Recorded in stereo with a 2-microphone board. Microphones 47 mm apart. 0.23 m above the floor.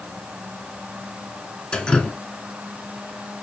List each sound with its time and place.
1.7 s dripping: 20° left (ahead or behind), 1.0 m